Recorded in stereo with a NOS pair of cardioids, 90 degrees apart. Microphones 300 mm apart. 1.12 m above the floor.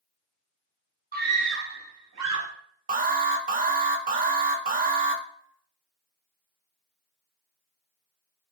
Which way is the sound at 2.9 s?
30° right.